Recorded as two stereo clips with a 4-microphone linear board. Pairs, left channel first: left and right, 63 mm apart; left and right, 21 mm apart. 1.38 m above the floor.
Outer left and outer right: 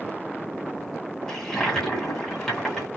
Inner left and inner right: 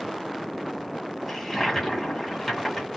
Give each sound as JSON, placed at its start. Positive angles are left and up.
{"t": 1.3, "sound": "a toilet flushing", "side_deg": 5, "distance_m": 1.6}